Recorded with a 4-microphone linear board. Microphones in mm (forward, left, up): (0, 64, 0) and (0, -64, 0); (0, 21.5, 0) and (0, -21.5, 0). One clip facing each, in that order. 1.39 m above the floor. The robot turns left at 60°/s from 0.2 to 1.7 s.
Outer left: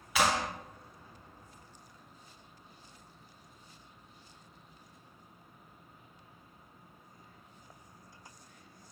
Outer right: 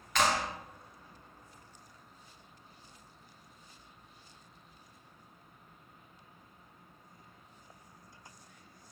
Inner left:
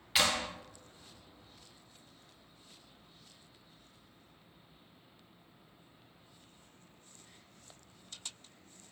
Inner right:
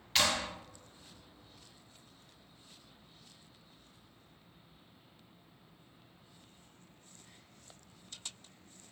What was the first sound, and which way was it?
A clap, 10° left (ahead or behind).